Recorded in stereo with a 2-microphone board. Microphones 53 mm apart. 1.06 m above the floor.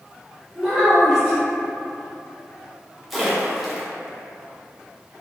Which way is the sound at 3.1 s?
5° right (ahead or behind).